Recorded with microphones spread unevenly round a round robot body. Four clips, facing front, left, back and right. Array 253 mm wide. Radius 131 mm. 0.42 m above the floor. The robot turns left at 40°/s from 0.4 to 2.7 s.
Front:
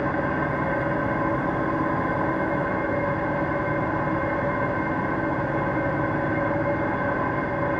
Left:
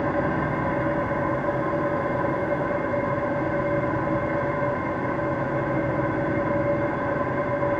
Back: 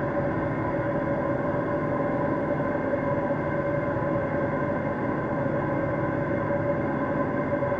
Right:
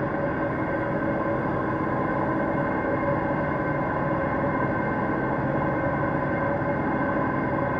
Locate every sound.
0.0 s an engine running: 50° left, 3 m; by 7.8 s 45° right, 3 m